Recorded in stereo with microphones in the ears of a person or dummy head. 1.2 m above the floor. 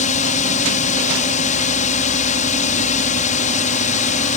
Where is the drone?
35° left (ahead or behind).